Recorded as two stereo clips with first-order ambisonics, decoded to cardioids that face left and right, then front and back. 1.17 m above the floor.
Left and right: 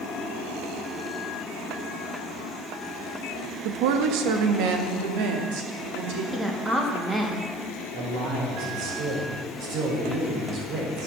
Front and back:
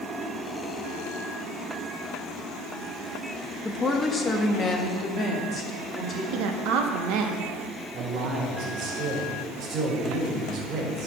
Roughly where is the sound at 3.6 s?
Right.